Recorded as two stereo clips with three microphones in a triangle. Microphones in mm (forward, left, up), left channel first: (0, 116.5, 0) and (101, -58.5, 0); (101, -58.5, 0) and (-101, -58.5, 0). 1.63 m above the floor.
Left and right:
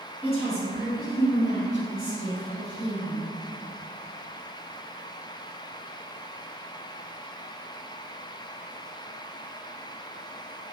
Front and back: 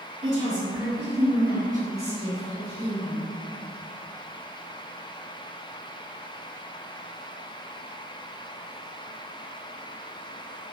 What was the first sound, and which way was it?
A woman speaking, straight behind.